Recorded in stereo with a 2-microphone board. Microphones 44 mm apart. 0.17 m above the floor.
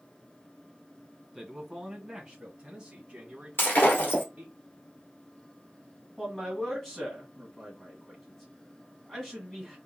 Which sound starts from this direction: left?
Breaking glass, at 3.6 s.